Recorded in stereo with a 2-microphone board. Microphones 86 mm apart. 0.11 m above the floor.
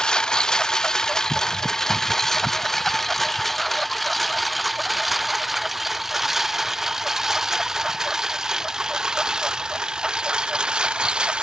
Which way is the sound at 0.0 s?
10° left (ahead or behind).